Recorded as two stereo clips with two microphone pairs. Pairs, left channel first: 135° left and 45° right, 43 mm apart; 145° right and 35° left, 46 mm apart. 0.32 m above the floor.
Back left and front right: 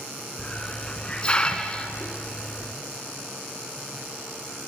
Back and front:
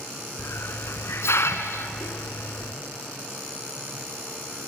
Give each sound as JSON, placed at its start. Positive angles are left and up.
{"t": 0.4, "sound": "a hiss", "azimuth_deg": -160, "distance_m": 1.7}